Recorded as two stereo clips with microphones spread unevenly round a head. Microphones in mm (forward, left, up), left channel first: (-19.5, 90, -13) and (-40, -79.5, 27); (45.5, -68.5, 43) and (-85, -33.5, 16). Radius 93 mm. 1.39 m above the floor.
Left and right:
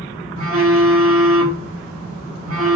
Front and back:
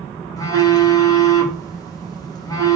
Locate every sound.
0.4 s a phone buzzing: 80° right, 3 m